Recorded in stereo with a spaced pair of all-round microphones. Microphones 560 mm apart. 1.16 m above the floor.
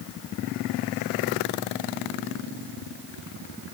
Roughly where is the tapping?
I don't hear tapping.